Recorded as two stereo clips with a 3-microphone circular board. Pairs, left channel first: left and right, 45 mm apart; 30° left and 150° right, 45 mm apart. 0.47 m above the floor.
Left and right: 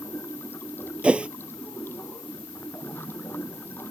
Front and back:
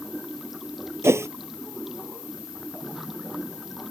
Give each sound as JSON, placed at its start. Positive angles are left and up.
{"t": 0.0, "sound": "running water", "azimuth_deg": 125}
{"t": 1.0, "sound": "a whoosh", "azimuth_deg": -155}